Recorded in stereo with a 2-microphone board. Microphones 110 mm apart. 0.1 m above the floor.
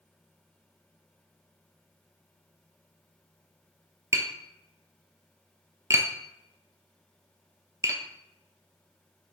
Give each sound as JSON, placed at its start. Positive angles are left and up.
{"t": 4.1, "sound": "tapping", "side_deg": -30, "distance_m": 0.7}